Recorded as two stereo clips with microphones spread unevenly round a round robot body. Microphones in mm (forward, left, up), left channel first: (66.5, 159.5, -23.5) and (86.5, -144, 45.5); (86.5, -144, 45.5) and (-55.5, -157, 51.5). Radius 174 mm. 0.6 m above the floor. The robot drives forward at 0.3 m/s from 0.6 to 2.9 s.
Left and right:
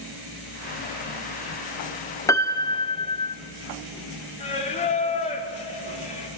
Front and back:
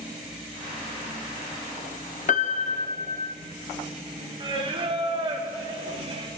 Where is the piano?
25° left, 0.6 m; by 3.3 s 35° left, 0.5 m.